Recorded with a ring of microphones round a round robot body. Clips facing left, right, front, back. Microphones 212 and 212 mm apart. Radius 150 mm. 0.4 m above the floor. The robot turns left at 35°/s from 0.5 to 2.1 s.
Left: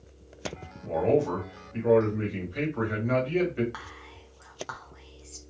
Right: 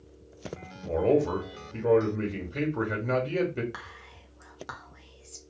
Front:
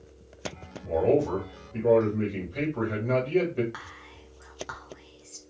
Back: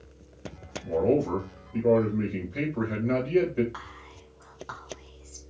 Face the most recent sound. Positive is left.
turn(degrees=-45)